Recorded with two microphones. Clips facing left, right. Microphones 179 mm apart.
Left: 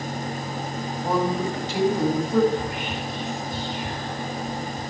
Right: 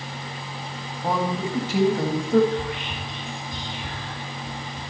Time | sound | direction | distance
1.0 | a man speaking | 55° right (ahead or behind) | 3 m
2.5 | whispering | 80° right | 5 m